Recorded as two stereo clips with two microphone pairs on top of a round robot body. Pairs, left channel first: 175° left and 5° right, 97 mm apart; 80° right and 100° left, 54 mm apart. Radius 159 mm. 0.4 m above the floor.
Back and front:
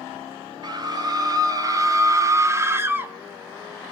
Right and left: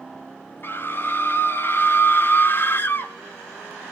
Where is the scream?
40° right, 3 m; by 3.1 s 65° right, 1.9 m.